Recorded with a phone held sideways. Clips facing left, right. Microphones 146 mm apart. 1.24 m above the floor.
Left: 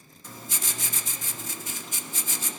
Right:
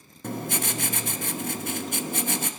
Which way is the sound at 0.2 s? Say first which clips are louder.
Right 10 dB; 65° right (ahead or behind).